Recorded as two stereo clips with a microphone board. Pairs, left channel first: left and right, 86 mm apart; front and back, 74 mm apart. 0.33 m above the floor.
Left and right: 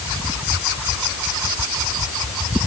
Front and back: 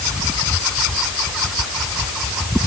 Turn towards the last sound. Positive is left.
No sound to turn to.